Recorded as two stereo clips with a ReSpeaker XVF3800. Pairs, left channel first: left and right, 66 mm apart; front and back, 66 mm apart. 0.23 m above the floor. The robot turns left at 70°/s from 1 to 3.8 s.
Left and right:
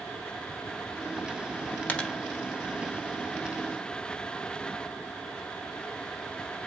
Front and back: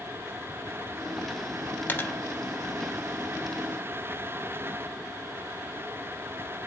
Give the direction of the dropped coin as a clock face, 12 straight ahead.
11 o'clock.